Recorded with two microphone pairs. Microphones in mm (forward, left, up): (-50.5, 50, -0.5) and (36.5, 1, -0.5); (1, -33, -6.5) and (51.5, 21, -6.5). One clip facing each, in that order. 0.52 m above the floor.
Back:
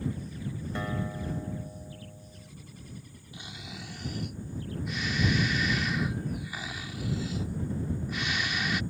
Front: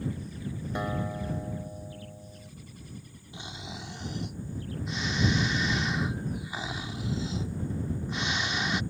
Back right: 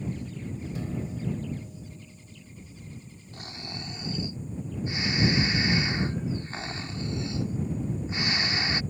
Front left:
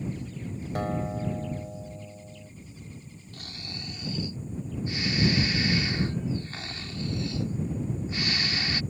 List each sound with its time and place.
0.8 s a guitar: 40° left
3.3 s snoring: 80° right